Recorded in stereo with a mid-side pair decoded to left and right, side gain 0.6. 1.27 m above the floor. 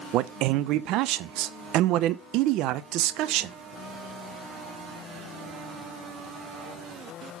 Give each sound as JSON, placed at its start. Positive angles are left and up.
{"t": 0.1, "sound": "a man speaking", "azimuth_deg": -65, "distance_m": 0.5}